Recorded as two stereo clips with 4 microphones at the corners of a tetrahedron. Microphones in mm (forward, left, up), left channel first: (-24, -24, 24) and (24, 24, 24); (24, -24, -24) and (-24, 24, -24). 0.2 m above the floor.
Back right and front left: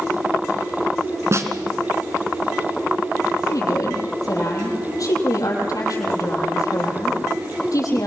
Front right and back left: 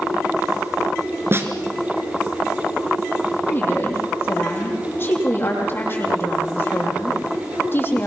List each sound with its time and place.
1.3 s a snare drum: 85° left, 2.5 m
3.5 s a woman speaking: 105° right, 7.5 m